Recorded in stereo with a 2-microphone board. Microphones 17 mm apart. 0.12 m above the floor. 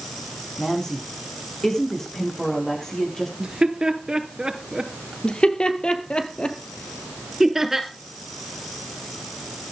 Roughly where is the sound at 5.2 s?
Left.